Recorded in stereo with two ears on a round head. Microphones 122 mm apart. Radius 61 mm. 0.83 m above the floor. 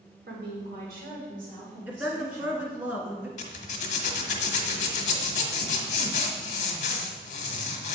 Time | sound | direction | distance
0.3 | a woman speaking | 75° right (ahead or behind) | 2.5 m
1.9 | a woman speaking | 15° right (ahead or behind) | 1.6 m
3.4 | a zipper | 55° left (ahead or behind) | 1.1 m